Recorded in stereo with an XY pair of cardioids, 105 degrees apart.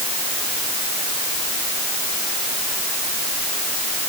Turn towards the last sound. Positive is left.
No sound to turn to.